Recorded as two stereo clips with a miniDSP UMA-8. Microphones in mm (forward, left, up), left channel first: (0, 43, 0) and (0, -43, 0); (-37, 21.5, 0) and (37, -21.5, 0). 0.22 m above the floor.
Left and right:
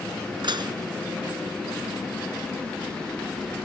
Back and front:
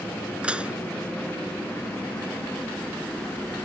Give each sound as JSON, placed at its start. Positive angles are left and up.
{"t": 0.4, "sound": "dishes clattering", "azimuth_deg": -105}